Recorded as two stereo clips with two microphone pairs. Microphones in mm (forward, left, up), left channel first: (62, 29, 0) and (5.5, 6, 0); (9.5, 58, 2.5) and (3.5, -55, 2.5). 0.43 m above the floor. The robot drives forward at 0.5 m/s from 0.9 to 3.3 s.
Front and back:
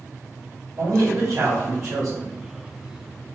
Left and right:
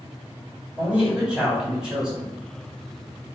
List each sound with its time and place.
0.8 s a man speaking: 160° right, 1.6 m; by 2.3 s 165° right, 2 m